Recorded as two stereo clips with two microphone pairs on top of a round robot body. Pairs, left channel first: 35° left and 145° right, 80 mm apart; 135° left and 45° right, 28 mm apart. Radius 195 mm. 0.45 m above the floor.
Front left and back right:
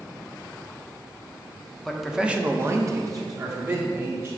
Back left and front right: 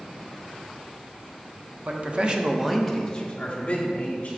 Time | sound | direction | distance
1.9 | a man speaking | 50° right | 1.7 m